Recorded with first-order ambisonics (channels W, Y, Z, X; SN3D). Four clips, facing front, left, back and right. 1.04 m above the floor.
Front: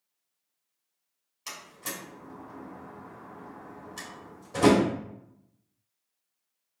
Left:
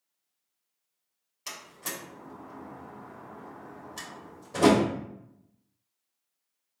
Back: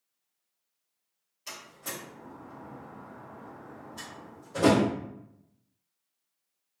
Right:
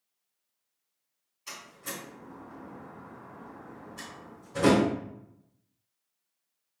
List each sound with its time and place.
1.5 s a door slam: 60° left, 1.7 m